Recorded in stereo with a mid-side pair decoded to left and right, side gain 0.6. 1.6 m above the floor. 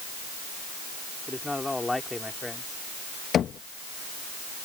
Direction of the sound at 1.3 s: 10° left.